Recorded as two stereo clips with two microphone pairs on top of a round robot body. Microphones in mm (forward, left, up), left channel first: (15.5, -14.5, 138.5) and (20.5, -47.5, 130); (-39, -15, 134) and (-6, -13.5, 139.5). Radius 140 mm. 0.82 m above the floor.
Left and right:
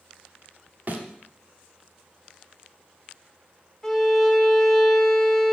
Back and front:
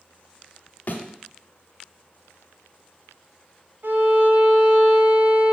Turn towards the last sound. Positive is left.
turn(degrees=15)